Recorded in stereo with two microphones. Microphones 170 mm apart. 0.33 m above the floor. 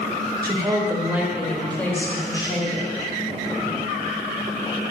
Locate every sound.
0.4 s a woman speaking: 25° right (ahead or behind), 1.2 m; by 2.9 s 35° left (ahead or behind), 1.4 m